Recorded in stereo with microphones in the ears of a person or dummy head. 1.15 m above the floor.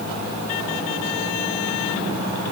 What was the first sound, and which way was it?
Only background noise.